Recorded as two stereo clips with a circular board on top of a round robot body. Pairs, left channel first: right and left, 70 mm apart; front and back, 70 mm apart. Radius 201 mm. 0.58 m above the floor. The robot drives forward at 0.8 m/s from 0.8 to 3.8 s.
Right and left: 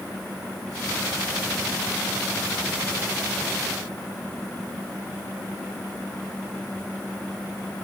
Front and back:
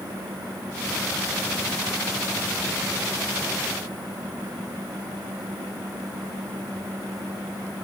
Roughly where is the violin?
No violin in this recording.